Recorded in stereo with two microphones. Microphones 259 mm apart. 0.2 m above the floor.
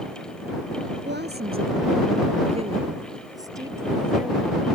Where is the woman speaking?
45° right (ahead or behind); by 4.7 s 5° right (ahead or behind).